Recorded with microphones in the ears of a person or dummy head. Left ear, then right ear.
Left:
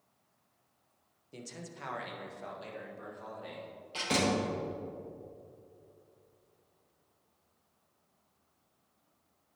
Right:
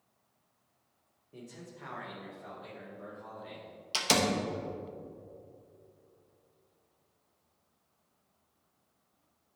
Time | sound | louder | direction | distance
1.3 | a man speaking | left 2 dB | 75° left (ahead or behind) | 1.0 m
3.9 | a door slam | right 2 dB | 60° right (ahead or behind) | 1.0 m